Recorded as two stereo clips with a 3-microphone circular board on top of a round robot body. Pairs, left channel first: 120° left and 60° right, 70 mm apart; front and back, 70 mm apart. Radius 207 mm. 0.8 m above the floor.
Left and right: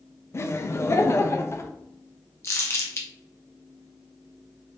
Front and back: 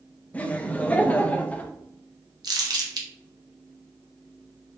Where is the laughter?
70° left, 0.7 m.